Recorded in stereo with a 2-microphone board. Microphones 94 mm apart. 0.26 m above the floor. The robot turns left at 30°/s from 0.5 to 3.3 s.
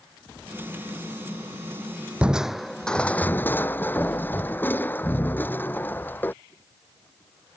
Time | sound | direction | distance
2.2 | crushing | 170° right | ?